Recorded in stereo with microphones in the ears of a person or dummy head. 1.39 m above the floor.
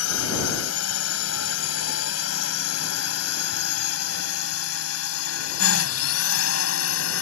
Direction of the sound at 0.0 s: 85° left.